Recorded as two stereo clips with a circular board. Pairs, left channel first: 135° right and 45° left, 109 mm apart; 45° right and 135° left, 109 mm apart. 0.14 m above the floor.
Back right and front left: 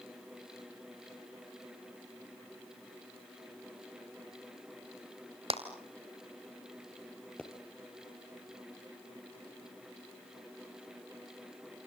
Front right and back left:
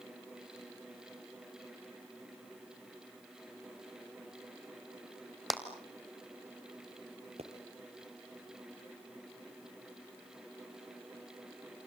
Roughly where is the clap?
Ahead left.